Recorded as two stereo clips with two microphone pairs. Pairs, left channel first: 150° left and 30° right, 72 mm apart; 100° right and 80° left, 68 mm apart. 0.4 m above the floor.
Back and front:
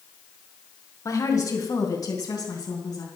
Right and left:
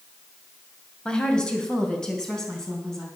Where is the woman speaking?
175° right, 2.5 m; by 3.0 s 175° left, 4 m.